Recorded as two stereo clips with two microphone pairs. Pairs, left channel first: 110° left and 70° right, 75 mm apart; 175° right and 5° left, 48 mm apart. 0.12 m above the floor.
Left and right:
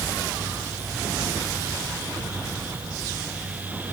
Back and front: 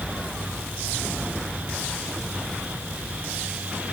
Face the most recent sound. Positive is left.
No sound to turn to.